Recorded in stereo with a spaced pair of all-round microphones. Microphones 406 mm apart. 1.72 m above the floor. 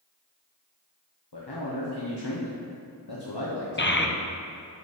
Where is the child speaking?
30° left (ahead or behind), 0.6 m.